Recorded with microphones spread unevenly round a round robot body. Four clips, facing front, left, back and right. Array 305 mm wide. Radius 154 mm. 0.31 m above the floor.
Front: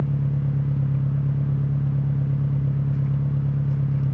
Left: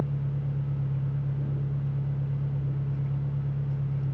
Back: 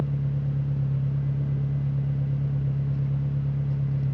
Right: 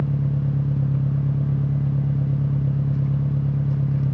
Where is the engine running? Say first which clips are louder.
Right 7 dB, front 3 dB; 65° right, 1.0 m.